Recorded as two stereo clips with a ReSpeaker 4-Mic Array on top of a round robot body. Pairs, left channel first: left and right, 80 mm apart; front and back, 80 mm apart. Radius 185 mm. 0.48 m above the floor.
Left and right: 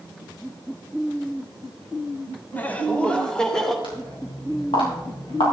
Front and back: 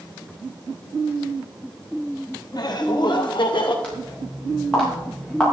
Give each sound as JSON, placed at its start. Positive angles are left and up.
{"t": 2.5, "sound": "laughter", "azimuth_deg": 25, "distance_m": 1.7}
{"t": 3.8, "sound": "footsteps", "azimuth_deg": 80, "distance_m": 7.0}